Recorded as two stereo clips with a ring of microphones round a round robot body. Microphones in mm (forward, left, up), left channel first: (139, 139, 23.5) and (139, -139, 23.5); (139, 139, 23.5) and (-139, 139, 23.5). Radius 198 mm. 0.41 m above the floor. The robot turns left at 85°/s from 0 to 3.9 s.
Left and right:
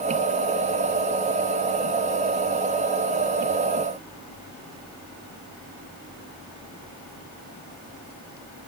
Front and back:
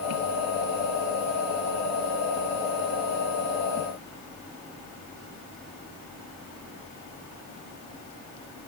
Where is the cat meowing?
I don't hear a cat meowing.